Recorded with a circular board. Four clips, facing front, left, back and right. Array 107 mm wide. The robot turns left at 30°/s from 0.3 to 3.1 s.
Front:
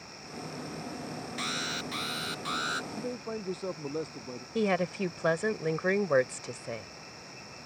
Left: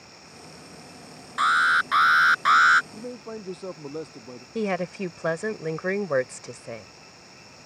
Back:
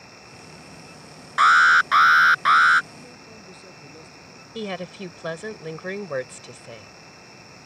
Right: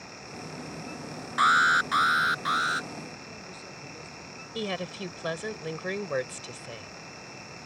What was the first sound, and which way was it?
An alarm, straight behind.